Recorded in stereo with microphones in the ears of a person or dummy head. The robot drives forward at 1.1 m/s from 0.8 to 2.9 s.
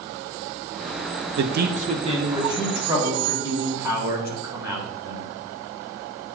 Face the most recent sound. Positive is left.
turn(degrees=-15)  # may be behind; listen again after turning